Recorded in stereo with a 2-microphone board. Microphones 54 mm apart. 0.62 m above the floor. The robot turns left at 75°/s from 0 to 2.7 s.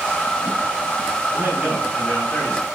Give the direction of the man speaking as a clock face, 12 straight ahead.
4 o'clock.